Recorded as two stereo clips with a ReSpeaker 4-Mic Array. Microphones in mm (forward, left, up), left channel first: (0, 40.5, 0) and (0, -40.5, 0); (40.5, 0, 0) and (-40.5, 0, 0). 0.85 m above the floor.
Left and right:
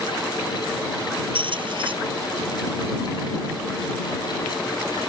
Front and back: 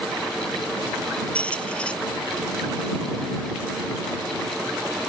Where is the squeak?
80° right.